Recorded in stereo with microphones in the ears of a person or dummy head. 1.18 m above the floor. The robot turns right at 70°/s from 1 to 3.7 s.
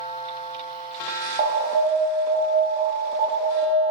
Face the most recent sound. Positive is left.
turn(degrees=20)